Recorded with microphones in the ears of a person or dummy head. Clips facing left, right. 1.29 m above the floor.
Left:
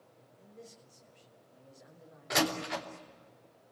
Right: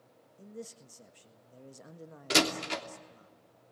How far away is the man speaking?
About 1.5 m.